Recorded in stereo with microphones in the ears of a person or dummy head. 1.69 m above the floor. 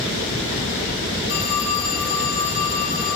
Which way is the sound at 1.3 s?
80° left.